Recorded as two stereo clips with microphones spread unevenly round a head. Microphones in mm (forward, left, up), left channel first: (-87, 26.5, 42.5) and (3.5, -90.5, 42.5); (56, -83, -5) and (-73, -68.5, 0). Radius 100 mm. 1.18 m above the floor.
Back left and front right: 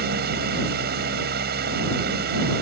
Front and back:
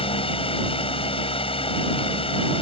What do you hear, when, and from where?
0.0 s a fan: 50° right